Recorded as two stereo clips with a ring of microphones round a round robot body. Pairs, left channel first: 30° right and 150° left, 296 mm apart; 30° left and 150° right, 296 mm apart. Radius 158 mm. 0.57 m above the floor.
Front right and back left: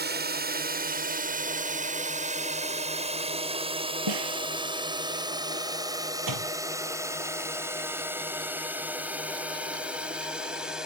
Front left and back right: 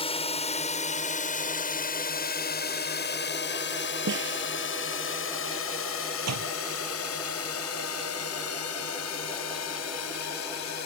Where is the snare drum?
155° left.